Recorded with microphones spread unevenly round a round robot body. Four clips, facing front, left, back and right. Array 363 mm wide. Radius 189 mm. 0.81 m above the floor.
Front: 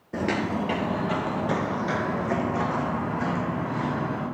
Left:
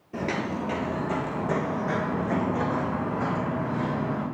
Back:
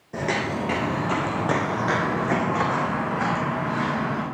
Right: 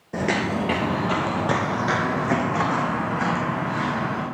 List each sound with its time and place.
0.1 s footsteps: 70° right, 0.8 m; by 4.2 s 130° right, 4 m